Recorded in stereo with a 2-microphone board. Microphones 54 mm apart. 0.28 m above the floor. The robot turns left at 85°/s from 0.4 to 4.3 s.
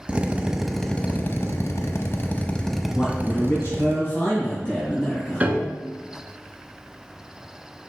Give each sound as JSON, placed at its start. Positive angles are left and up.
{"t": 0.1, "sound": "a drill", "azimuth_deg": -155, "distance_m": 0.7}
{"t": 2.9, "sound": "a man speaking", "azimuth_deg": 160, "distance_m": 3.0}
{"t": 5.4, "sound": "a piano", "side_deg": -30, "distance_m": 0.8}